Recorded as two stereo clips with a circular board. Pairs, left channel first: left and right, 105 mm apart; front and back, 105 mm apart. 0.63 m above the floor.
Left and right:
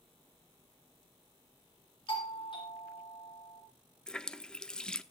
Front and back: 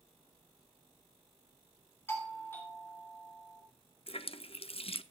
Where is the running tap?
10° left, 0.6 m.